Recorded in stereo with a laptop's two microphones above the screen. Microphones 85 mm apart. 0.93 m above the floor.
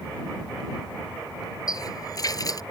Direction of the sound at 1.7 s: 45° left (ahead or behind).